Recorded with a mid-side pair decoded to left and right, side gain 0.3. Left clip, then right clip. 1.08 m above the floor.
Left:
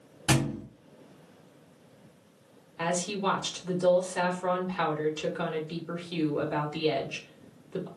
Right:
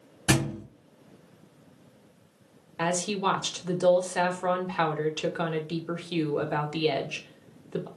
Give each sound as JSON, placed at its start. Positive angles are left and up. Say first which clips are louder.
{"t": 0.3, "sound": "a thud", "louder": "right 1 dB", "azimuth_deg": -40, "distance_m": 1.5}
{"t": 2.8, "sound": "a woman speaking", "louder": "right 2 dB", "azimuth_deg": -55, "distance_m": 1.1}